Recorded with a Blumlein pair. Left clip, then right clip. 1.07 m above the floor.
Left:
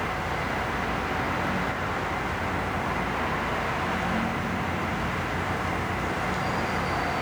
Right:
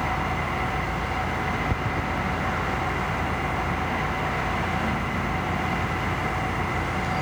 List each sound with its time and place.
0.0 s an engine running: 20° right
1.7 s running footsteps: 40° right